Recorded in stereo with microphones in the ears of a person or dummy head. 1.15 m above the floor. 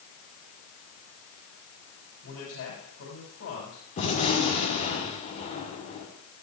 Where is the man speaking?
85° left, 6 m.